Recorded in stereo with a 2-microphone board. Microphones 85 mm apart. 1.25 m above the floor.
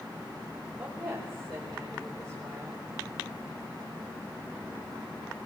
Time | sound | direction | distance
0.8 | a woman speaking | centre (ahead or behind) | 5.5 m